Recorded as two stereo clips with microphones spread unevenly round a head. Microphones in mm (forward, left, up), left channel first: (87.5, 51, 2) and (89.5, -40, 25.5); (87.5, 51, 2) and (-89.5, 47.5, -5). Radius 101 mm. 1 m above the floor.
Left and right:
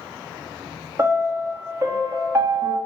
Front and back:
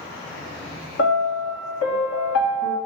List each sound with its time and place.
1.0 s a piano: 30° right, 1.6 m